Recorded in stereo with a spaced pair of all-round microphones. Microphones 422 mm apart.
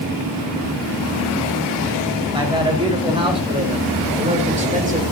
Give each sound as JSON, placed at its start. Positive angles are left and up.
{"t": 2.3, "sound": "a man speaking", "side_deg": -10, "distance_m": 5.5}